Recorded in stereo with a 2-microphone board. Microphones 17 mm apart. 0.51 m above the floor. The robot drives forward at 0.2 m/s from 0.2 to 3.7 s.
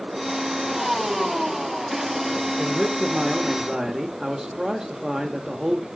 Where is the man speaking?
50° right (ahead or behind), 1.0 m; by 5.9 s 45° right (ahead or behind), 1.1 m.